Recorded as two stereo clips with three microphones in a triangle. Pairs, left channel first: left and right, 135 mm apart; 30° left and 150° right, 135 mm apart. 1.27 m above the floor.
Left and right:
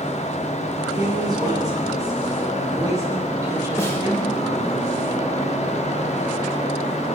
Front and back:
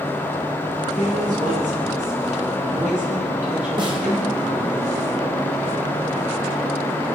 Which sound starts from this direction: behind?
A snare drum, at 3.8 s.